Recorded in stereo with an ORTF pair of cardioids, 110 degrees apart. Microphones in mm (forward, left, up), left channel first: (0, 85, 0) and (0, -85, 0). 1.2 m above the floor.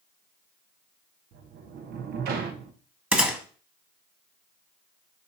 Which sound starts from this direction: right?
A sliding door, at 1.3 s.